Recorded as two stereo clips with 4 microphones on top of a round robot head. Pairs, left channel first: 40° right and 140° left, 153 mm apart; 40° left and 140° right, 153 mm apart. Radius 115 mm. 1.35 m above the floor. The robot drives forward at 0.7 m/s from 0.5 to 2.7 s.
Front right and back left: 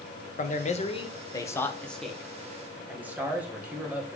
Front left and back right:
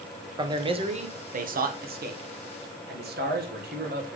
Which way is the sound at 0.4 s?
75° right.